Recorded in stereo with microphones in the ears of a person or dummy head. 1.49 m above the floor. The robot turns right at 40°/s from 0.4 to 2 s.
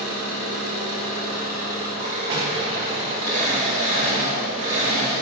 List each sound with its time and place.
0.0 s an engine running: 110° right, 1.2 m; by 5.2 s 50° right, 1.2 m
2.3 s an explosion: 30° right (ahead or behind), 0.6 m